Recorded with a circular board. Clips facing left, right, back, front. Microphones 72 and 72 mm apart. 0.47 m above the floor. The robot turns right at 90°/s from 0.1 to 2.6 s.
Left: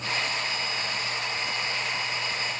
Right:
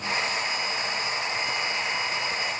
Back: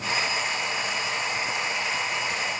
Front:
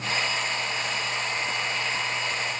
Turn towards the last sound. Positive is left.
No sound to turn to.